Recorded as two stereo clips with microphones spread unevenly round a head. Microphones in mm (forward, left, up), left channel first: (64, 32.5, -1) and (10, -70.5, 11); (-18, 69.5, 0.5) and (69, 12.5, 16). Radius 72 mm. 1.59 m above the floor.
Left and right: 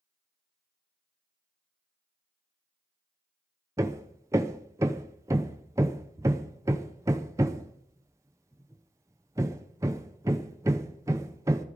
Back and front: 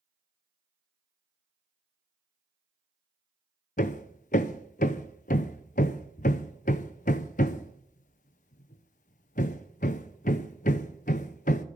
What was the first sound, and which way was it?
Hammering, 175° left.